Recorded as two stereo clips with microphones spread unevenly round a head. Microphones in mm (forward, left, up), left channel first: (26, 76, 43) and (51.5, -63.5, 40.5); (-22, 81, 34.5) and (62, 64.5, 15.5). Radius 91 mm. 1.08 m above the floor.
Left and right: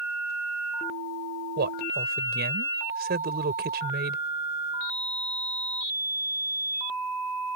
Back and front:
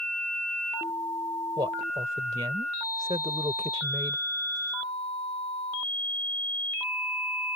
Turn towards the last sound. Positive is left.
turn(degrees=-75)